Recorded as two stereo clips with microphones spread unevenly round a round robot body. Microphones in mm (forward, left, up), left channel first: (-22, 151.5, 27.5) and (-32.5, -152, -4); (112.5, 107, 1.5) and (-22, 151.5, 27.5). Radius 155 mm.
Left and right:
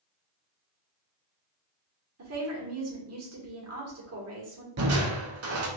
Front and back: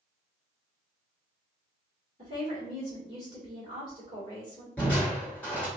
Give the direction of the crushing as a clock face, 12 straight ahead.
3 o'clock.